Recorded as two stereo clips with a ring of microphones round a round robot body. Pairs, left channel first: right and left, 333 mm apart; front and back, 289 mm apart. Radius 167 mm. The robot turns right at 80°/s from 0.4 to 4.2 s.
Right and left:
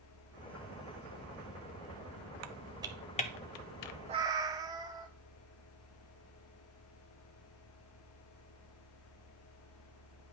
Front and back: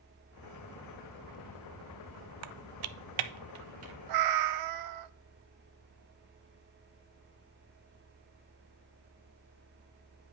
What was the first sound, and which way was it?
Typing on a keyboard, 135° left.